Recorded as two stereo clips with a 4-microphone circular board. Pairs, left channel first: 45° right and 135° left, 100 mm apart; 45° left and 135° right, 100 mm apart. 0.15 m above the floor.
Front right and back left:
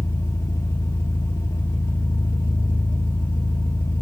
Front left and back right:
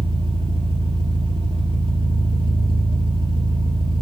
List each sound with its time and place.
0.0 s an engine running: 105° right, 2.0 m